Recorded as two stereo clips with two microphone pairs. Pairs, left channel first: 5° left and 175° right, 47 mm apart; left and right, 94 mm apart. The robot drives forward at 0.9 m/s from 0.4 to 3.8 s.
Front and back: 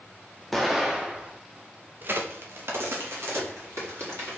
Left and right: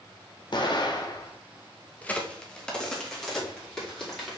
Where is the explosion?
90° left, 1.3 m; by 1.3 s 125° left, 1.5 m.